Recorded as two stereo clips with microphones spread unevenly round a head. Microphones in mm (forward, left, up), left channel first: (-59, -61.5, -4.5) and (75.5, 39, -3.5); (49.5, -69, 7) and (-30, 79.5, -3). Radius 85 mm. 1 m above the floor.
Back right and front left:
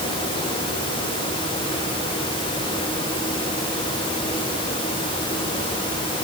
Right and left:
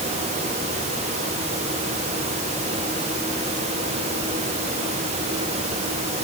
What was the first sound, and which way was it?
Only background noise.